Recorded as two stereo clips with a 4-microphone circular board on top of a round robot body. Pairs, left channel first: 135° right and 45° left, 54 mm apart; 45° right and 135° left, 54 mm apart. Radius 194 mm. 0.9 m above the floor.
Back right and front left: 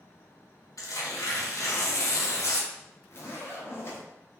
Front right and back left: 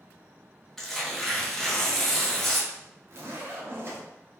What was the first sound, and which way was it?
Tearing paper, 130° right.